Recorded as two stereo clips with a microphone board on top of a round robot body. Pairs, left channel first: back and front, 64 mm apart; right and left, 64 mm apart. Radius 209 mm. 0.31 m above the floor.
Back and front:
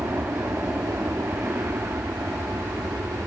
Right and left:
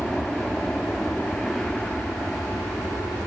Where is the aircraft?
15° right; by 3.3 s 20° right.